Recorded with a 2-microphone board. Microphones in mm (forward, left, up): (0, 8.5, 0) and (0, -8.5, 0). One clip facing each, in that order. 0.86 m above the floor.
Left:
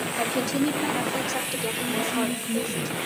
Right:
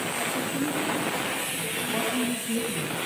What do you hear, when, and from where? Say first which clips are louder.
0.2 s a woman speaking: left 6 dB; 65° left (ahead or behind), 3 m; by 2.9 s 75° left (ahead or behind), 4.5 m
1.9 s a woman speaking: even; 20° right (ahead or behind), 5.5 m